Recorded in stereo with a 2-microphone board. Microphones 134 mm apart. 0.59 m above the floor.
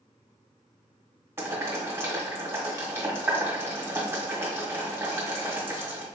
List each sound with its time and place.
1.4 s boiling: 20° right (ahead or behind), 1.4 m